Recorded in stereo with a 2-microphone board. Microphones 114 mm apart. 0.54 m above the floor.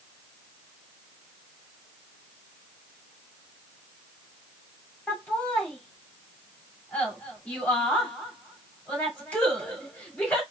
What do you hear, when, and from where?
5.1 s laughter: 10° left (ahead or behind), 1.7 m